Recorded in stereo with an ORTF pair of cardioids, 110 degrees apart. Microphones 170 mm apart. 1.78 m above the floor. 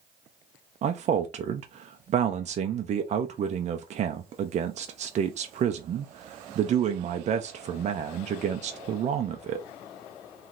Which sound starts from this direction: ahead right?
A man speaking, at 0.8 s.